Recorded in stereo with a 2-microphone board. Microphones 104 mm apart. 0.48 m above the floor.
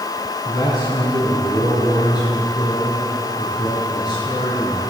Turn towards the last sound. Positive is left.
turn(degrees=45)  # may be behind; listen again after turning